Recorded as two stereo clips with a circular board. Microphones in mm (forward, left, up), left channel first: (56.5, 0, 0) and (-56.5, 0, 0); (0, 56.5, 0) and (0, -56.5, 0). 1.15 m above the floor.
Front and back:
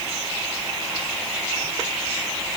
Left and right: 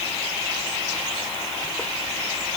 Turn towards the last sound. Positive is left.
No sound to turn to.